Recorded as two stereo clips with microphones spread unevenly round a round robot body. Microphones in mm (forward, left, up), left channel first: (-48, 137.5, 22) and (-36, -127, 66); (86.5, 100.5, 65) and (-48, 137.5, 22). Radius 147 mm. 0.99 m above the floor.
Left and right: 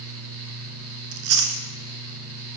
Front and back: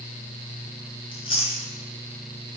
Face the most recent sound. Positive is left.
turn(degrees=-65)